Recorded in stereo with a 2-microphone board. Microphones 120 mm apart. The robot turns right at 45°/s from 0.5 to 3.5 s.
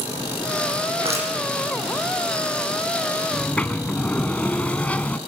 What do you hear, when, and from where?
1.0 s crushing: 50° right (ahead or behind), 8 m; by 1.3 s 65° right (ahead or behind), 8 m
3.3 s a sliding door: 5° left (ahead or behind), 0.8 m; by 5.2 s 10° left (ahead or behind), 0.8 m